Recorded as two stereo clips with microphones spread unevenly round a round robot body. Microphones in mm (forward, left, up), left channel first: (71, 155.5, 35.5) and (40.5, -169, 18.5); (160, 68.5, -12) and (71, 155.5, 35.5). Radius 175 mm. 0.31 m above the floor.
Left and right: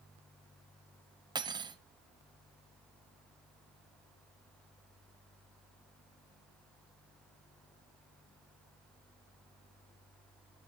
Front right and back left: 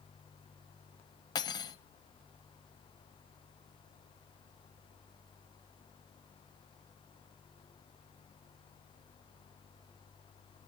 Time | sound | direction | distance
1.4 | cutlery clinking | 25° right | 0.8 m